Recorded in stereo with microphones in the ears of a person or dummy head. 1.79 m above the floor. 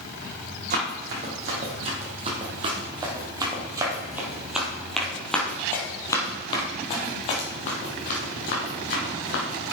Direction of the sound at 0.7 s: 45° right (ahead or behind).